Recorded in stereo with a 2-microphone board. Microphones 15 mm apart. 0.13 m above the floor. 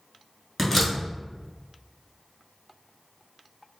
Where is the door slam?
10° left (ahead or behind), 1.2 m.